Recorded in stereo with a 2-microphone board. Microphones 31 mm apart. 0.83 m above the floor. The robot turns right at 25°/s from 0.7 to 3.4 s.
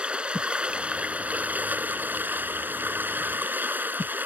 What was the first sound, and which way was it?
Running water, 145° right.